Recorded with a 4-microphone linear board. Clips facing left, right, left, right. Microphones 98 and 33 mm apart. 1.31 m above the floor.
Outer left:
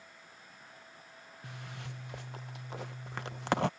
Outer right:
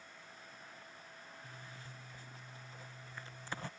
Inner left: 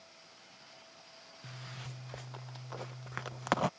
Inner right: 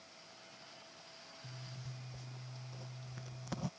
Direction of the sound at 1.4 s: 80° left.